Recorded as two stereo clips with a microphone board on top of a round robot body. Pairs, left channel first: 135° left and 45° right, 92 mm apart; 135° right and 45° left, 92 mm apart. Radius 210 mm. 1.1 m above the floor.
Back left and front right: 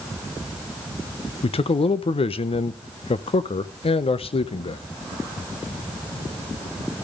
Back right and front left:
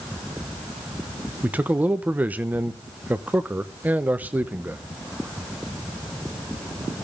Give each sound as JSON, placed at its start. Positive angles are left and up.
{"t": 1.4, "sound": "a man speaking", "azimuth_deg": 120, "distance_m": 0.7}